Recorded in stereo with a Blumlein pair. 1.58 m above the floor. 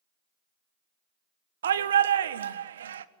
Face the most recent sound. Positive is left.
turn(degrees=-65)